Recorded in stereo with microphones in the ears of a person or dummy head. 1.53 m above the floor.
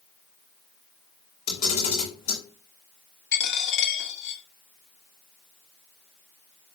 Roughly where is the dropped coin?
Left.